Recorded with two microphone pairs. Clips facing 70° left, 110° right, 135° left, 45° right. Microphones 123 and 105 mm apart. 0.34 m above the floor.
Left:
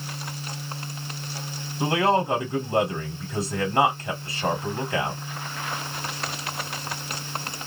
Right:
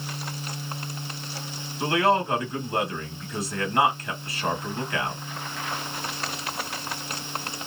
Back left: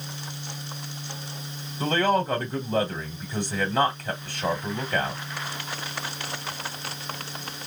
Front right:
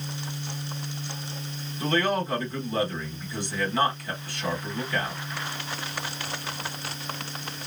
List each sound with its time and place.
1.8 s a man speaking: 120° left, 1.5 m